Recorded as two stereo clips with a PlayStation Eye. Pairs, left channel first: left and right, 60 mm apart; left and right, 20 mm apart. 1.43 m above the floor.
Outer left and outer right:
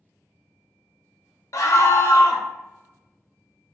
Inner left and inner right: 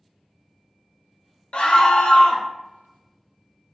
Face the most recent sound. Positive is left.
turn(degrees=65)  # may be behind; listen again after turning